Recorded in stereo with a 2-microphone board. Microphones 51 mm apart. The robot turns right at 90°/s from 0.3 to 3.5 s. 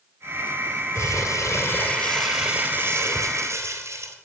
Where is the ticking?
I don't hear ticking.